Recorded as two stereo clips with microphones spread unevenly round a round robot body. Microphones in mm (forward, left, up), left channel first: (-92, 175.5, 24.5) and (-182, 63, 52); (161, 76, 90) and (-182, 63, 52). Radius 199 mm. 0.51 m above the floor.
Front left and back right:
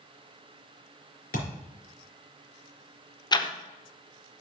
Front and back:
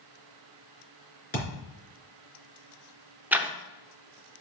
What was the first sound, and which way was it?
A thud, 65° left.